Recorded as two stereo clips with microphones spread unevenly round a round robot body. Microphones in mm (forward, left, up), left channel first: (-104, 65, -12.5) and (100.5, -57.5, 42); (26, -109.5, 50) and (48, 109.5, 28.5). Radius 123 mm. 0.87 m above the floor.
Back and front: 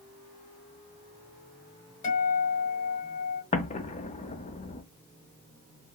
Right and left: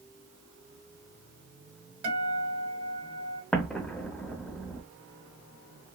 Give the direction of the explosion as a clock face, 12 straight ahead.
5 o'clock.